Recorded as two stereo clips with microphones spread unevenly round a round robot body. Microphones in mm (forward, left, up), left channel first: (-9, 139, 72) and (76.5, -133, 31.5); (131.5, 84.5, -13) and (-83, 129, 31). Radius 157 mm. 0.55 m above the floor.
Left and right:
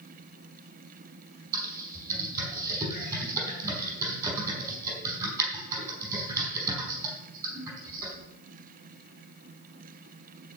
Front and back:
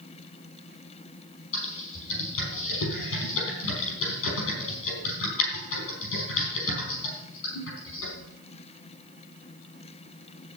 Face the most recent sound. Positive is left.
turn(degrees=10)